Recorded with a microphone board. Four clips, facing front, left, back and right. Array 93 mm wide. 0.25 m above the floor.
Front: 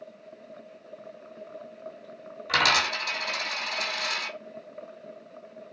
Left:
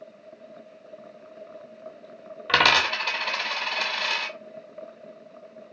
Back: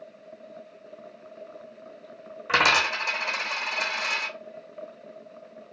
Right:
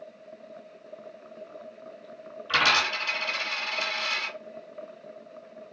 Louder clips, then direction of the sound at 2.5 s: Left 3 dB, back 2 dB; 115° left.